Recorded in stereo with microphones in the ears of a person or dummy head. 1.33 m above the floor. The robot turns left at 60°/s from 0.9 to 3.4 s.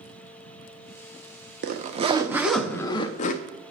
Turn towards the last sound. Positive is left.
turn(degrees=130)